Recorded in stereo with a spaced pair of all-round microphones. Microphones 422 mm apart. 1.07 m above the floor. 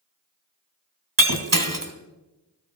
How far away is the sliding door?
No sliding door in this recording.